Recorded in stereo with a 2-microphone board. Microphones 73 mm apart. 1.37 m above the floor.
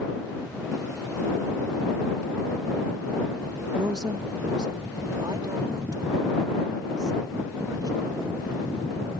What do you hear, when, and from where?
3.8 s a woman speaking: 70° right (ahead or behind)